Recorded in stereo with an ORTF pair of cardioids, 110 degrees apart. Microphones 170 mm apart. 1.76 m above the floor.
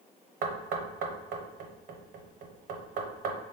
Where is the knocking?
65° right, 0.9 m.